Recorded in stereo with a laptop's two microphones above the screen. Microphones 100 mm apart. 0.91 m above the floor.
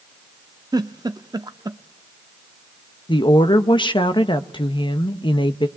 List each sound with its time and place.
0.7 s a giggle: 40° right (ahead or behind), 0.5 m
3.1 s a woman speaking: 55° left (ahead or behind), 0.9 m